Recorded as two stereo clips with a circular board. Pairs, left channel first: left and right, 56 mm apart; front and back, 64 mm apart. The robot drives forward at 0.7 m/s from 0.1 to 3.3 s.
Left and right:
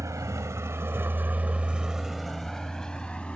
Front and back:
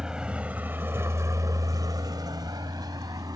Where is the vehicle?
100° right; by 3.4 s 160° left.